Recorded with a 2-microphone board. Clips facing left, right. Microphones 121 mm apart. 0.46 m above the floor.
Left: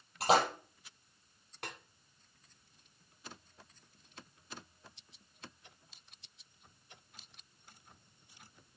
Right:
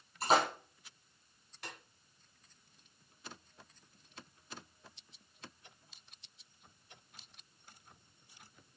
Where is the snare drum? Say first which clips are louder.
Left 3 dB; 65° left (ahead or behind), 1.5 m.